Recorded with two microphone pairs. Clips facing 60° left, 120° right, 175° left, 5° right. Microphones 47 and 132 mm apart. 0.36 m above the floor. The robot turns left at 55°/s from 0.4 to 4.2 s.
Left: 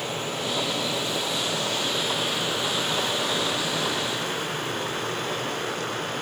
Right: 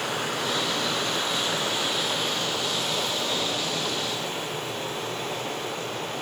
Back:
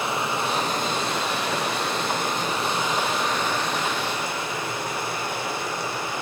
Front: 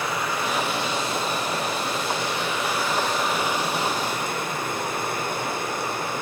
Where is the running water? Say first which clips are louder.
Right 1 dB, back 1 dB; 120° right, 4 m; by 6.2 s 30° left, 4 m.